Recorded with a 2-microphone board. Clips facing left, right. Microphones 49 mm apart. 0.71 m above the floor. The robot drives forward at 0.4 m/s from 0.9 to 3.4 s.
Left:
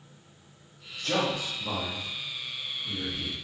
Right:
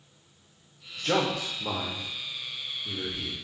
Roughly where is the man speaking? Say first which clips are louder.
Right 2 dB; right.